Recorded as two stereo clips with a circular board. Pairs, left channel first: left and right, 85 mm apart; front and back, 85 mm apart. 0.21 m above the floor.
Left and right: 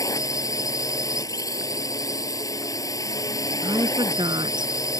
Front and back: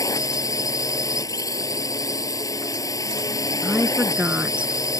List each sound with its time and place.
0.0 s a drone: 45° left
3.6 s a woman speaking: 105° right